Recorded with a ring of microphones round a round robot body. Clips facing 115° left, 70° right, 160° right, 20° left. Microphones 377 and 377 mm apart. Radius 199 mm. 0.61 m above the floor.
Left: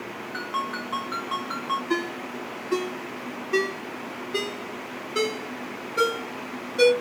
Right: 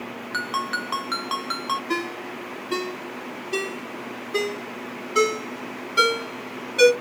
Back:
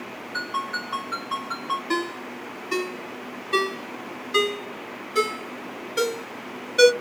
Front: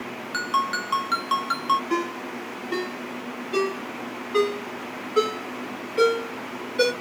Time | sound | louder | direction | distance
0.3 | a ringtone | even, front 2 dB | 25° right | 1.0 m
1.9 | a ringtone | left 1 dB, even | 140° right | 1.2 m